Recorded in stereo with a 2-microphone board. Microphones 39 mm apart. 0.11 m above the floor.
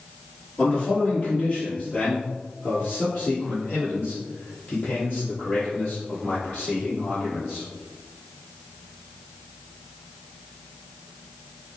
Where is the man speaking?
20° left (ahead or behind), 1.5 m; by 7.7 s 45° left (ahead or behind), 4.5 m.